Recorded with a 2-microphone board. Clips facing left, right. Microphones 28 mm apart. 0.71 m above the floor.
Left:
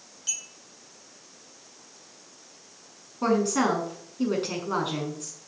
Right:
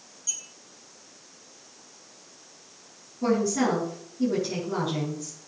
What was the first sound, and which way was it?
A clink, 55° left (ahead or behind).